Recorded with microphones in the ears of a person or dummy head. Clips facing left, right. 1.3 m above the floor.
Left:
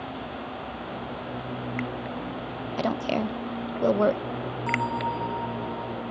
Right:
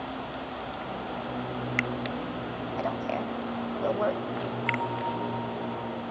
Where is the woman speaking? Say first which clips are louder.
Left 5 dB; 50° left (ahead or behind).